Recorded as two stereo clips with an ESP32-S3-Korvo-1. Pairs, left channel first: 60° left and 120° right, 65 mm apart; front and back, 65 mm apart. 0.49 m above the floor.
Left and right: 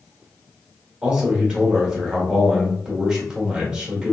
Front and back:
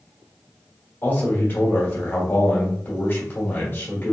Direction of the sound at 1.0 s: 45° right.